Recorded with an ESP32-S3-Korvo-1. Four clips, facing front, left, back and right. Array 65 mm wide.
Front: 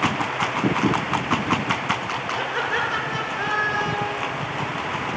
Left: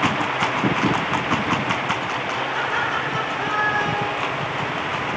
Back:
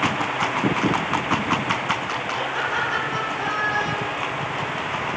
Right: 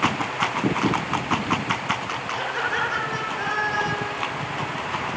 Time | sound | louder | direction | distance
2.4 | laughter | even, front 1 dB | 25° right | 9.5 m